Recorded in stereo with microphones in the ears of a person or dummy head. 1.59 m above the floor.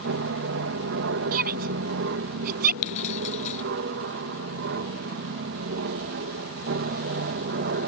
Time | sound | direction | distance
0.0 | an aircraft | 65° right (ahead or behind) | ?
1.3 | a shout | 50° right (ahead or behind) | ?
2.8 | keys jangling | 35° left (ahead or behind) | ?